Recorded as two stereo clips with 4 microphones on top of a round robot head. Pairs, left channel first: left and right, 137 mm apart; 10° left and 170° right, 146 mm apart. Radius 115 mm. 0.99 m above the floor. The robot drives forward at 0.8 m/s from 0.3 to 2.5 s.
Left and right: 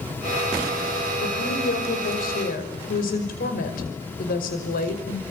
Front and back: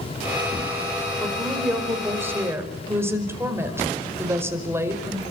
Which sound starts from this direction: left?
A woman speaking, at 1.2 s.